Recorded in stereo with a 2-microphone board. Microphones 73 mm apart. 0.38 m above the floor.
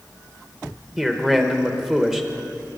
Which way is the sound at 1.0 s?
5° right (ahead or behind).